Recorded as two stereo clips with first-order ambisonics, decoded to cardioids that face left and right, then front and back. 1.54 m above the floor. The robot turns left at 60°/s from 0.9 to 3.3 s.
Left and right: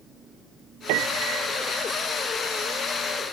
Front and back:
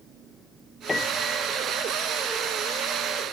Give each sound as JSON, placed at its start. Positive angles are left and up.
{"t": 0.9, "sound": "a piano", "azimuth_deg": -75}